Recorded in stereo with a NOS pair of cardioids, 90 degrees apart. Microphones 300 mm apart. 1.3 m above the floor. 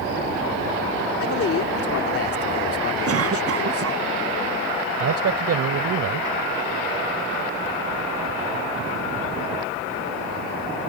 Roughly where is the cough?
Ahead right.